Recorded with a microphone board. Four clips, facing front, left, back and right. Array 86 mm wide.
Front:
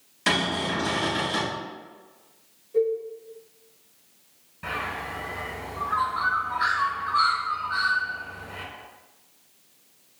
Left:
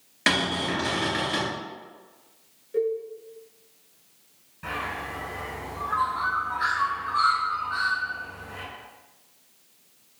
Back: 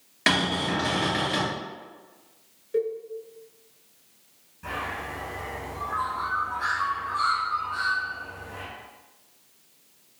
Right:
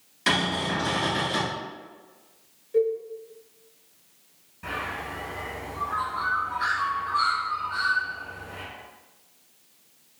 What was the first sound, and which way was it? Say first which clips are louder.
A cupboard door: even, back 1 dB; 130° left.